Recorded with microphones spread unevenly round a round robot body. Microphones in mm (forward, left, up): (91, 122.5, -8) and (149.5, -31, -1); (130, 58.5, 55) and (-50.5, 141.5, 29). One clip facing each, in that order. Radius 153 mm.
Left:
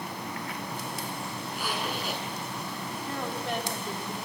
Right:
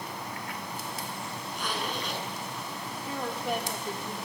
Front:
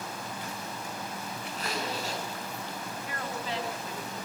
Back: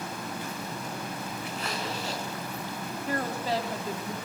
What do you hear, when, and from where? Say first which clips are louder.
1.5 s a zipper: even, front 1 dB; 25° left, 9 m
3.1 s a woman speaking: right 2 dB, back 7 dB; 155° right, 2 m